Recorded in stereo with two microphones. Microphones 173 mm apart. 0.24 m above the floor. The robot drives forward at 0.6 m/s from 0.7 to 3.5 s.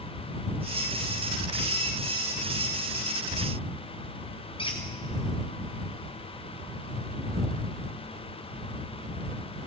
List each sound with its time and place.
4.6 s a squeak: 30° left (ahead or behind), 2.5 m